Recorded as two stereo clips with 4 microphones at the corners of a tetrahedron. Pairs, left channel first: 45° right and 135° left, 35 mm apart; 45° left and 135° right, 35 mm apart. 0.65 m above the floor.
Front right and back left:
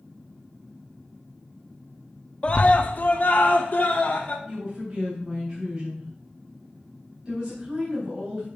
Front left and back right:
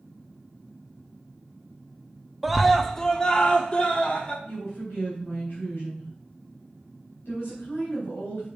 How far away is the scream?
About 0.6 m.